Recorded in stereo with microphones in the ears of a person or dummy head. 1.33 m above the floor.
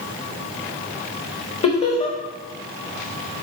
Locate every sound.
1.6 s laughter: 35° left (ahead or behind), 1.2 m